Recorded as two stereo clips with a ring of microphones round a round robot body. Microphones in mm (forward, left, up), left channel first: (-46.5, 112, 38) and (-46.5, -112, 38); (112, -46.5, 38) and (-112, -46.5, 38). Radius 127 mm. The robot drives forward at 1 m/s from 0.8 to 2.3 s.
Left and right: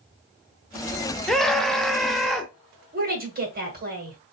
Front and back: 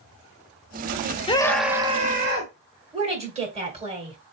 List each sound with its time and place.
1.3 s a scream: 5° left, 0.9 m; by 2.5 s straight behind, 1.1 m
2.9 s a woman speaking: 125° right, 2.5 m